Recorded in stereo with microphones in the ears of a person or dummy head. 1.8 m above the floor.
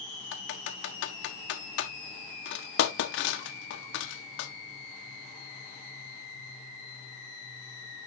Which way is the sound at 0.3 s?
80° left.